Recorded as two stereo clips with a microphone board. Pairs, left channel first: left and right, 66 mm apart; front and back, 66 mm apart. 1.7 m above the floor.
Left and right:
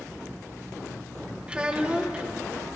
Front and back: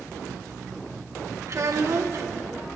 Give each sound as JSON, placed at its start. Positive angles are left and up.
{"t": 1.5, "sound": "a child speaking", "azimuth_deg": -160, "distance_m": 1.1}